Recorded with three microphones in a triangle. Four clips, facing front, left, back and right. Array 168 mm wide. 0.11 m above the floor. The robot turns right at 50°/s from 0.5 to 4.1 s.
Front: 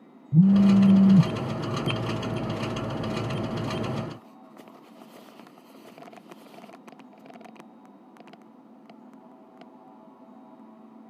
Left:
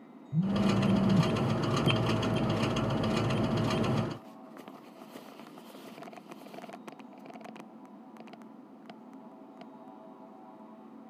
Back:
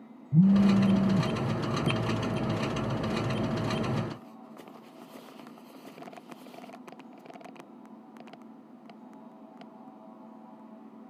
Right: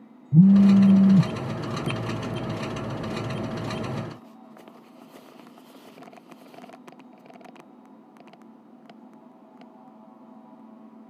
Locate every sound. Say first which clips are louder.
0.3 s a phone buzzing: right 13 dB, front 4 dB; 75° right, 1.1 m; by 1.3 s 35° right, 1.1 m